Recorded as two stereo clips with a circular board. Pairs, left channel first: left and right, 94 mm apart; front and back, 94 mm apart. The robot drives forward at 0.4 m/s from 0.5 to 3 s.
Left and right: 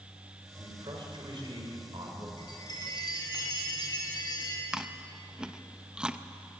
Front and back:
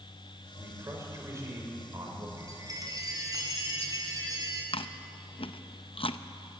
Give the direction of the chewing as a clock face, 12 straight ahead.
12 o'clock.